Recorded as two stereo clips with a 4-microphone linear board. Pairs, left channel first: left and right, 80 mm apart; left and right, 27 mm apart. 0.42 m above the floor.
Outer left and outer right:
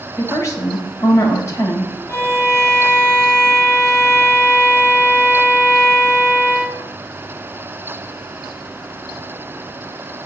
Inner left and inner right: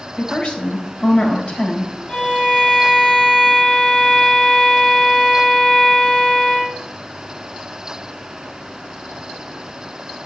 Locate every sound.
0.2 s a woman speaking: 40° left (ahead or behind), 2.5 m
2.1 s a violin: 35° left (ahead or behind), 3.5 m